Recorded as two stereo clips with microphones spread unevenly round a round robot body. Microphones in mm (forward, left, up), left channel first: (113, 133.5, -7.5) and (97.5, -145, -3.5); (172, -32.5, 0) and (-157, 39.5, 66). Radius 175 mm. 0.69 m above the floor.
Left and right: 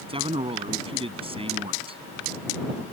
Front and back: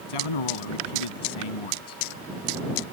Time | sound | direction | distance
0.1 | a man speaking | 20° right | ?